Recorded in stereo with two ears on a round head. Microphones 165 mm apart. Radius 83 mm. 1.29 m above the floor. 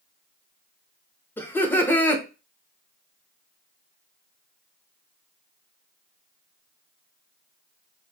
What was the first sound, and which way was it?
Laughter, 10° left (ahead or behind).